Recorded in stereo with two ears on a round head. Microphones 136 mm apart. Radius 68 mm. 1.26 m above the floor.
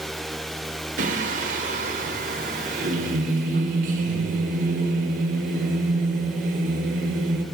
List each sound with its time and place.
1.0 s singing: 55° right (ahead or behind), 5.5 m